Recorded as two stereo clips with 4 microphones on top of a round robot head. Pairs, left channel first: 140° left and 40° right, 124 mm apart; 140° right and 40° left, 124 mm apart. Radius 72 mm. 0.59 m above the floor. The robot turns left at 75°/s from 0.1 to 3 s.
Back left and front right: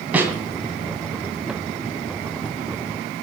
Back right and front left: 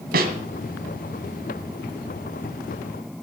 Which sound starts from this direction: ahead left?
A snare drum, at 0.1 s.